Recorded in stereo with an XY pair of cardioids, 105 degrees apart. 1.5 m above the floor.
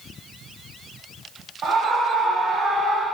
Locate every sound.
1.6 s a scream: 65° right, 3 m; by 3.0 s 55° right, 3.5 m